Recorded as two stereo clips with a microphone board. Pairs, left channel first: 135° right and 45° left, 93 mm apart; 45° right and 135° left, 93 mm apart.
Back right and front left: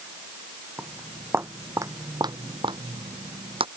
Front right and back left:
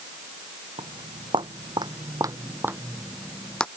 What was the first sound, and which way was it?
Footsteps, 120° left.